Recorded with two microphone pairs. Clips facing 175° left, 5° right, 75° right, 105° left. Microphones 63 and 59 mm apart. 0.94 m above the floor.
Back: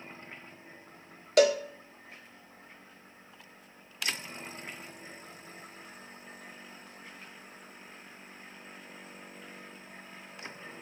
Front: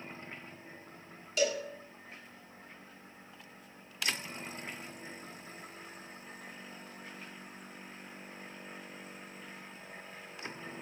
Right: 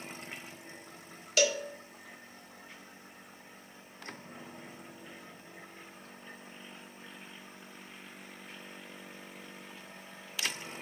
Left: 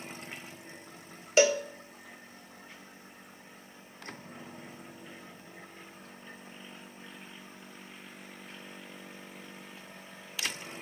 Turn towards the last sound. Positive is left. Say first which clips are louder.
# back 9 dB, left 5 dB
turn(degrees=165)